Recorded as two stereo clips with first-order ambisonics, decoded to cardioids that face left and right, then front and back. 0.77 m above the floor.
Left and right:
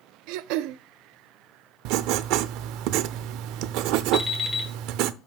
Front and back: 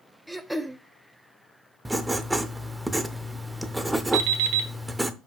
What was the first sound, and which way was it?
Throat clearing, 90° right.